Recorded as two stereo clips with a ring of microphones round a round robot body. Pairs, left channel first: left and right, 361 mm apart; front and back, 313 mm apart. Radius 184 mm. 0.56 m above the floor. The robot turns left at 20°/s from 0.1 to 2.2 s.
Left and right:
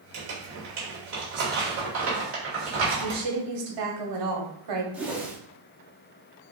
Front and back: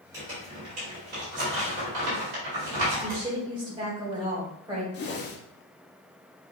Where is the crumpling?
100° right, 2.5 m; by 3.2 s 140° right, 2.5 m.